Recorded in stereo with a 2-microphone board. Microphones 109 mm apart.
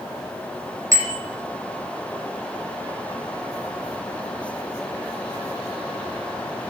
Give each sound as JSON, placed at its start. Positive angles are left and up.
{"t": 0.9, "sound": "a bicycle bell", "side_deg": -30, "distance_m": 5.0}